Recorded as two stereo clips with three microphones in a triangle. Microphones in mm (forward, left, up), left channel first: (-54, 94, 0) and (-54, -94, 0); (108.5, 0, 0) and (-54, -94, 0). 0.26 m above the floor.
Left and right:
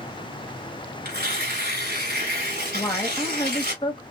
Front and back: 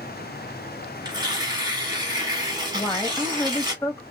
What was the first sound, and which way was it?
Tearing paper, 85° right.